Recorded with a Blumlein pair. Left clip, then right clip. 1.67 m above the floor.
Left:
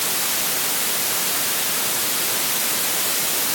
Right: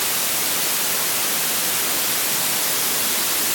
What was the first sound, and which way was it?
Only background noise.